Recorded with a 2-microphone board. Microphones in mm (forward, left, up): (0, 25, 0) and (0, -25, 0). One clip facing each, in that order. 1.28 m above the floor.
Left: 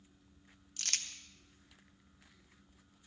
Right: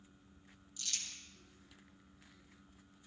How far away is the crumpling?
About 0.9 m.